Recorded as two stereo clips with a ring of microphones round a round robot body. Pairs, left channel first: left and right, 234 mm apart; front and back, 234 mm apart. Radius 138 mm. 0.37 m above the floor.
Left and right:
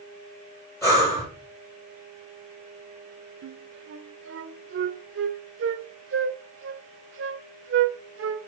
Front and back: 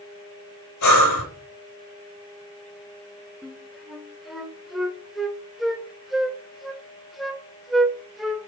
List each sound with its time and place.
0.8 s breathing: 10° left, 2 m
3.4 s a flute: 90° right, 0.8 m